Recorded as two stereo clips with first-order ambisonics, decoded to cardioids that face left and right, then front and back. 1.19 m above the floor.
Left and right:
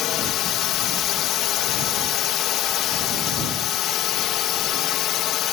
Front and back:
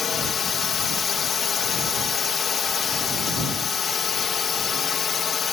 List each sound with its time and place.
0.0 s a drone: 60° left